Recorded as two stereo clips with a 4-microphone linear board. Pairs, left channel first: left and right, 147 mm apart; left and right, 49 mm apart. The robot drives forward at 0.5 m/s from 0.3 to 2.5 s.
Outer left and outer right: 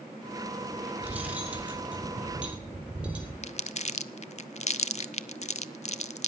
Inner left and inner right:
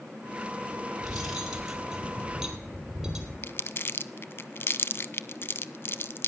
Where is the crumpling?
50° left (ahead or behind), 0.5 m.